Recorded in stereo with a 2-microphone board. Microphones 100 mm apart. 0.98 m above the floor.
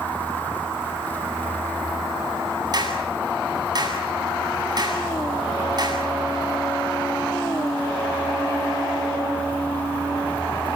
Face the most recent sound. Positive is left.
turn(degrees=-45)  # may be behind; listen again after turning